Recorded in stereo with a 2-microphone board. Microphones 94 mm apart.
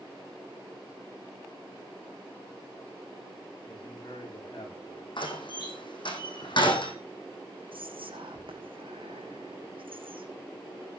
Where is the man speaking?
55° left (ahead or behind), 8.5 m; by 5.1 s 50° left (ahead or behind), 10 m.